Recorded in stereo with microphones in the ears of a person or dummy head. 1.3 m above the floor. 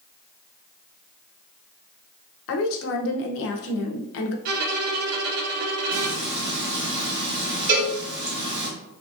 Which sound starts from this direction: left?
A woman speaking, at 2.5 s.